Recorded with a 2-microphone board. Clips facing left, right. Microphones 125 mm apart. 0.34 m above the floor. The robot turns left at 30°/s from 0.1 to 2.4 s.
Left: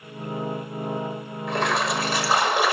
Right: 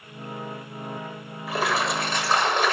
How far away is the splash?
About 1.4 m.